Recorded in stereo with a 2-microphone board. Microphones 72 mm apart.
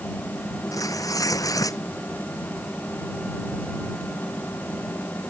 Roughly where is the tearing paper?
Left.